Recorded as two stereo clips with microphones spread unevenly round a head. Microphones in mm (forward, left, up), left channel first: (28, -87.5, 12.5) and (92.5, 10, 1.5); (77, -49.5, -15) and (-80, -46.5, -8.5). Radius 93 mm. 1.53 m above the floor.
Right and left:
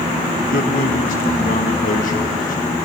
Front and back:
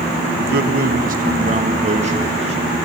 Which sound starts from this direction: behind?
A man speaking, at 0.4 s.